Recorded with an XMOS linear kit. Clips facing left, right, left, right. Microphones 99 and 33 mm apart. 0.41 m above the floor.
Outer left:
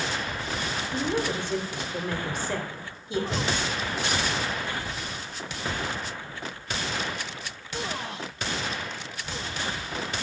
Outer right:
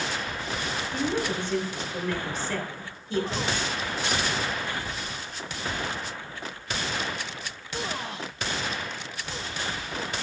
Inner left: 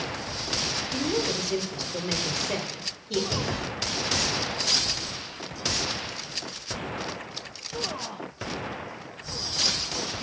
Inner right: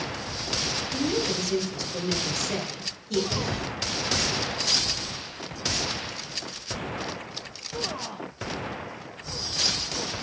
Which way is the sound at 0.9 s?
15° left (ahead or behind).